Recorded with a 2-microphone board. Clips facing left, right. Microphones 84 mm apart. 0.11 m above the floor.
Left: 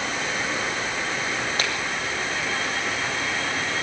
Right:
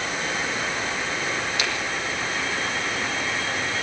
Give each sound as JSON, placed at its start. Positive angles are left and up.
{"t": 1.6, "sound": "a finger snap", "side_deg": 45, "distance_m": 4.5}